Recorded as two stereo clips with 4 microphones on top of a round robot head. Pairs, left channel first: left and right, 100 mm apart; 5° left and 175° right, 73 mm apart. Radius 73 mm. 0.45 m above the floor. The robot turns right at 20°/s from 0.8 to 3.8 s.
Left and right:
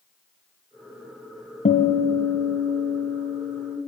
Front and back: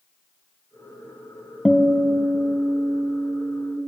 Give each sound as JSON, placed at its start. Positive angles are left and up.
{"t": 1.6, "sound": "a guitar", "azimuth_deg": 95, "distance_m": 0.6}